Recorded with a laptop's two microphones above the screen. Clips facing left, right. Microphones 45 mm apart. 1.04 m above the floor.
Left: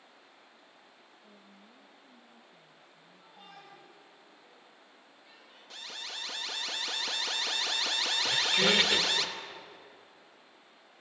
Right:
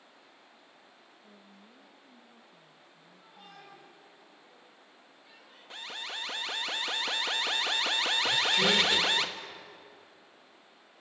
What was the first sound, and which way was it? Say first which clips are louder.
A woman speaking: right 1 dB; 10° right (ahead or behind).